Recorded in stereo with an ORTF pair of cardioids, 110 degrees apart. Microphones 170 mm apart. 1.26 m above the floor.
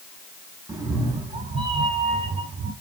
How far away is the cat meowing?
About 3 m.